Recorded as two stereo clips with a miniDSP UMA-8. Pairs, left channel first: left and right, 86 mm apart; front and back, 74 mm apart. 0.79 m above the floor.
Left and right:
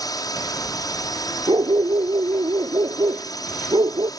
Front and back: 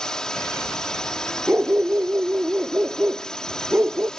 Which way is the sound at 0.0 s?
80° left.